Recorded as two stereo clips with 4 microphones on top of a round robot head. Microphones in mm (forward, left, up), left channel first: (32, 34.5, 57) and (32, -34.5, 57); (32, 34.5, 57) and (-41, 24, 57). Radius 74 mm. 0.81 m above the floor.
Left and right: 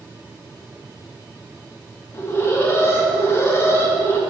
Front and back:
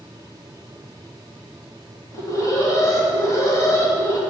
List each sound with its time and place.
2.1 s an alarm: 45° left, 2.5 m